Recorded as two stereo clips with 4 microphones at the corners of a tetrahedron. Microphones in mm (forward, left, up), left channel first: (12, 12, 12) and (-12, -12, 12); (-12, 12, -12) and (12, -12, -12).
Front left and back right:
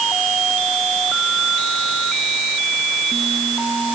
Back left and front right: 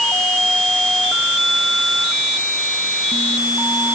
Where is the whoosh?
No whoosh in this recording.